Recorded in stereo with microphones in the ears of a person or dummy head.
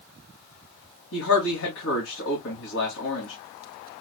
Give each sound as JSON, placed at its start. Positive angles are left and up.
{"t": 1.1, "sound": "a man speaking", "side_deg": 70, "distance_m": 2.5}